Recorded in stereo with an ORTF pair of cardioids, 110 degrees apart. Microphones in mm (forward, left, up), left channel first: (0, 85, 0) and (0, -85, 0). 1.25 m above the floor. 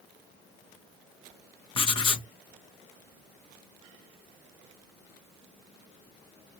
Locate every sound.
1.8 s writing: 30° left, 0.9 m